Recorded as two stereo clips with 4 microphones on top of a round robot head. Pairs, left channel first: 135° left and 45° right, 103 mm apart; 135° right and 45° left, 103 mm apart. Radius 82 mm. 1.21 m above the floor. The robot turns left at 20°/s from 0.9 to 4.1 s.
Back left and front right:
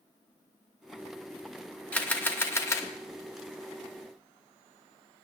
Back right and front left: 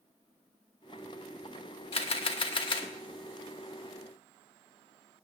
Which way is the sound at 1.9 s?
150° right.